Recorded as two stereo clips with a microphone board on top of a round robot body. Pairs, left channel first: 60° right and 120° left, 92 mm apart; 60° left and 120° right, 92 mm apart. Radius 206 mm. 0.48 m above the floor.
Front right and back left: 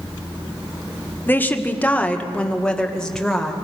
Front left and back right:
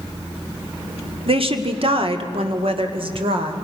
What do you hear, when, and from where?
1.3 s a woman speaking: 130° right, 1.8 m; by 3.5 s 145° right, 3 m